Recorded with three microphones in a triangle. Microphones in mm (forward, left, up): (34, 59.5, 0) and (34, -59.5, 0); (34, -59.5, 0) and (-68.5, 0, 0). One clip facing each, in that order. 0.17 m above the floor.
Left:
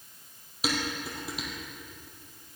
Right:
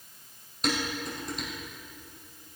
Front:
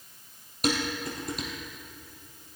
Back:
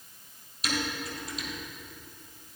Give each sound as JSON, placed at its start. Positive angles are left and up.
{"t": 0.6, "sound": "dishes clattering", "azimuth_deg": 5, "distance_m": 3.5}